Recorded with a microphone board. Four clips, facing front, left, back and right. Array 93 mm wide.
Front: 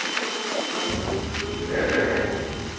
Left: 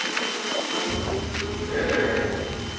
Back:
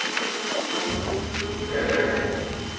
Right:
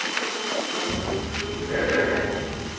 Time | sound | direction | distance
0.9 | breathing | 55° right | 0.9 m